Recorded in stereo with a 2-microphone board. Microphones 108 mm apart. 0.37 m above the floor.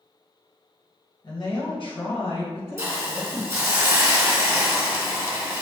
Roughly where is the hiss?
Right.